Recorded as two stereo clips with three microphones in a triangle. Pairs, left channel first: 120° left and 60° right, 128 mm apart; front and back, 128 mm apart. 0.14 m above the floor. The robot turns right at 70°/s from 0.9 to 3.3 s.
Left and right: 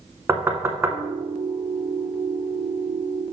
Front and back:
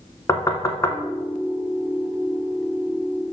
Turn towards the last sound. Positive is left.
turn(degrees=150)